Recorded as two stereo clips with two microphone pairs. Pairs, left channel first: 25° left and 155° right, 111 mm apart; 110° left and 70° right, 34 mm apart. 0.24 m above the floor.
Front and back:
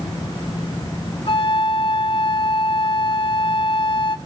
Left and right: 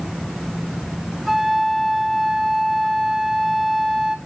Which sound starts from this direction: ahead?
A flute, at 1.3 s.